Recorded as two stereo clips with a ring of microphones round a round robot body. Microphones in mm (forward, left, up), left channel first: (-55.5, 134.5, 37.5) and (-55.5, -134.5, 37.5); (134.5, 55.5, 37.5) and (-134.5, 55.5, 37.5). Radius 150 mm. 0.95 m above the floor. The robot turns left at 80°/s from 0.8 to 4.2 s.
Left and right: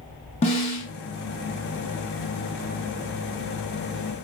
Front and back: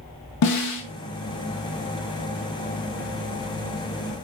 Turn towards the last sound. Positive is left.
turn(degrees=110)